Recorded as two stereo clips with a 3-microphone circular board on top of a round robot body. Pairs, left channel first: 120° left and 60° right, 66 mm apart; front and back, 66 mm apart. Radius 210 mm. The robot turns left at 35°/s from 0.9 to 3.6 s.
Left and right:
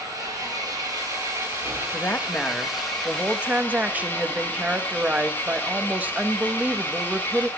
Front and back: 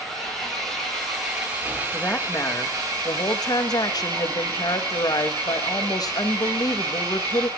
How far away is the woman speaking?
About 1.1 m.